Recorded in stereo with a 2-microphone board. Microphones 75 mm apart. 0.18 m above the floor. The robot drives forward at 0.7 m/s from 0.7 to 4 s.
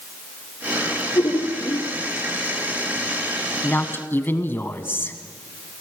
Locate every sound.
1.1 s laughter: 70° left (ahead or behind), 4 m
3.6 s a woman speaking: 30° left (ahead or behind), 1.2 m